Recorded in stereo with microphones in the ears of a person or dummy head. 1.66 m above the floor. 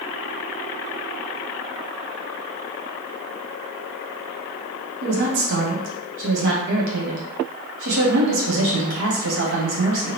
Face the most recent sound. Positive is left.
turn(degrees=-70)  # may be behind; listen again after turning